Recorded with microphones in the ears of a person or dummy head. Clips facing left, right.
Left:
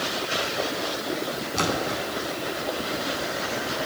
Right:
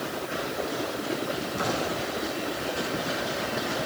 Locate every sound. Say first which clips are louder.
1.6 s a splash: left 4 dB; 80° left, 9 m